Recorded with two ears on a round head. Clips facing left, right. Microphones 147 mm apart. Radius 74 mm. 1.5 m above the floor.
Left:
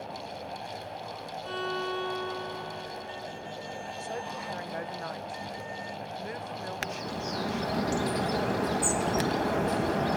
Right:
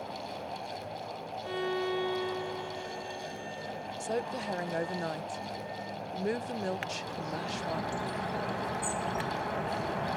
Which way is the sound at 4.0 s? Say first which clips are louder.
Right 5 dB; 35° right (ahead or behind).